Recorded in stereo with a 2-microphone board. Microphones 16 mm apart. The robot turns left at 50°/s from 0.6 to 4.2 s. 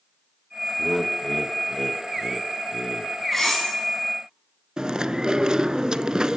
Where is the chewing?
55° right (ahead or behind), 0.5 m.